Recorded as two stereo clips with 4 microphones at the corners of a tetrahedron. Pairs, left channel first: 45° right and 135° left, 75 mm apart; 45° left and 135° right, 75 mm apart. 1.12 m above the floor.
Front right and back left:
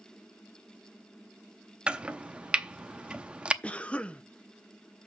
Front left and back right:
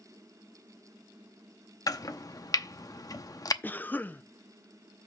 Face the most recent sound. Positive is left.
turn(degrees=10)